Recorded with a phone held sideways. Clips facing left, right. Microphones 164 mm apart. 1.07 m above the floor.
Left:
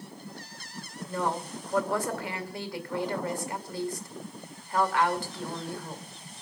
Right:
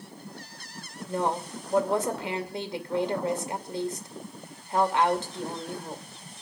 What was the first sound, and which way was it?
A woman speaking, 25° right (ahead or behind).